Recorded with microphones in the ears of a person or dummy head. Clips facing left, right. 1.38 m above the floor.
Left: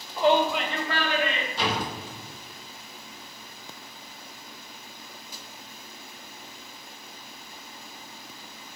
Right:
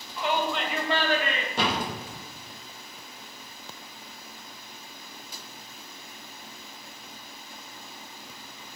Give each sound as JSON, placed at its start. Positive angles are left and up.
{"t": 0.2, "sound": "a shout", "side_deg": 40, "distance_m": 0.9}
{"t": 1.6, "sound": "a door slam", "side_deg": -50, "distance_m": 1.6}